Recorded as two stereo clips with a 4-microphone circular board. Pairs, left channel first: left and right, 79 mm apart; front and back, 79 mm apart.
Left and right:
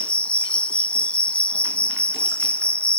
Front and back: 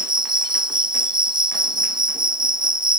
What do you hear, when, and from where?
0.0 s an insect: 165° left, 1.3 m